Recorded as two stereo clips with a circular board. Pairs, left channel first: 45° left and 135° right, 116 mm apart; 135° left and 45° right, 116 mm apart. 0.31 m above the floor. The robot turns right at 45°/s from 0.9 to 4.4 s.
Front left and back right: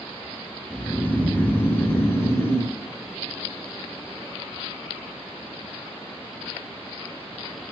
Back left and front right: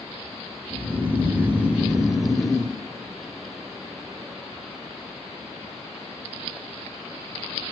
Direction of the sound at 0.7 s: 20° right.